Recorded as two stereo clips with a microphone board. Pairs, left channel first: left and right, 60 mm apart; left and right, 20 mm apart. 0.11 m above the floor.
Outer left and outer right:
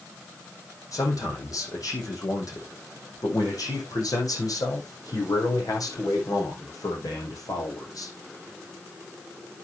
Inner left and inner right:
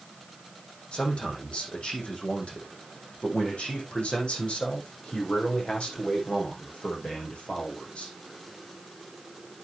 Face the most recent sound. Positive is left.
turn(degrees=75)  # may be behind; listen again after turning